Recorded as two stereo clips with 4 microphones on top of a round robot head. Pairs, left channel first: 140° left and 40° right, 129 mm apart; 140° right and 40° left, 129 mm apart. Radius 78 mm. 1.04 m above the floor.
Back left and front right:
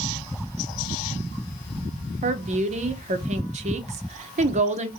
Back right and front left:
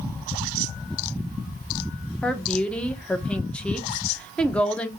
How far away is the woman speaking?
About 0.7 m.